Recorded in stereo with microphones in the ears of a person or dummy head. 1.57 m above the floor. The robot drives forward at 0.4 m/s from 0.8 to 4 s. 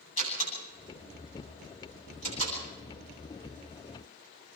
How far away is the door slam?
About 10 m.